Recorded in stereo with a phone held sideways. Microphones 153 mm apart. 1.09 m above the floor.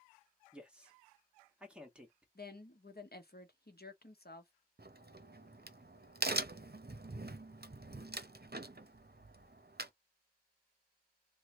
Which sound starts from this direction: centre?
A man speaking, at 0.5 s.